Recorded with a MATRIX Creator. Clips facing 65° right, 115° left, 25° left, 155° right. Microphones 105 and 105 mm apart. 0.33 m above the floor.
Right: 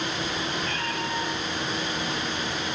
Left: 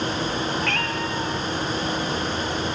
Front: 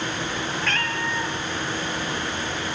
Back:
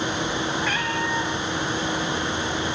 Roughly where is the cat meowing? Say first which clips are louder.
Left 4 dB, back 2 dB; behind left.